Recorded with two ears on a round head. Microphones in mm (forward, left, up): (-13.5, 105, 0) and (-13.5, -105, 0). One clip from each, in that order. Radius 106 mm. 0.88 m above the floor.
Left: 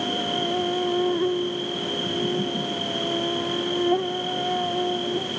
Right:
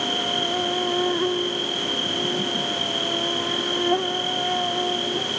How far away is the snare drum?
I don't hear a snare drum.